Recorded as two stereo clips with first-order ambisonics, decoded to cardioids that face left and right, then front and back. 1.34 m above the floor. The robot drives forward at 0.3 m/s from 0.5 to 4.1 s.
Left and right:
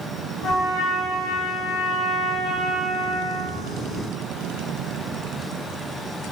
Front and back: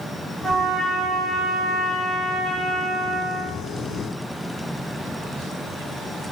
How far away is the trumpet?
About 1.3 m.